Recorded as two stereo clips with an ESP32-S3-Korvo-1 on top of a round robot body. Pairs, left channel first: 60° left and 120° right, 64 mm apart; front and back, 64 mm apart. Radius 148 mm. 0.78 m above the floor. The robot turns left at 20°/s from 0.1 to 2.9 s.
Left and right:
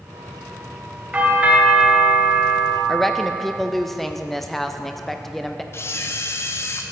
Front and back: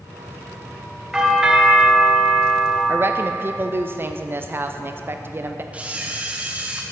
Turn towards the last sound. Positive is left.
turn(degrees=110)